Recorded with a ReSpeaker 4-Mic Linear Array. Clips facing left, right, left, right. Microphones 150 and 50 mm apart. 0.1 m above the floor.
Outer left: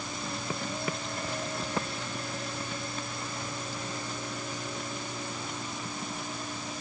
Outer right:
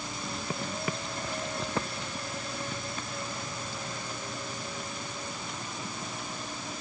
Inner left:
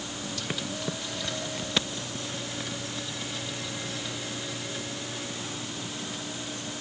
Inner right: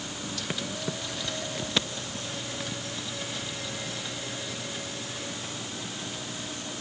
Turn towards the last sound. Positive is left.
No sound to turn to.